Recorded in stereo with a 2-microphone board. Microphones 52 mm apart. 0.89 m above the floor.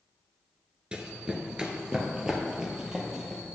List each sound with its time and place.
0.9 s running footsteps: 20° right (ahead or behind), 0.8 m; by 3.4 s 10° right (ahead or behind), 1.6 m